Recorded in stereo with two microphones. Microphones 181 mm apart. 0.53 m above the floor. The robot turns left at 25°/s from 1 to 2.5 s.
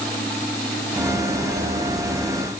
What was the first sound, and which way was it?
Only background noise.